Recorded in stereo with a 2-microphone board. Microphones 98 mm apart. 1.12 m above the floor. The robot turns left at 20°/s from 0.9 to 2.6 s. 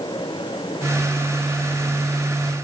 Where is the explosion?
No explosion in this recording.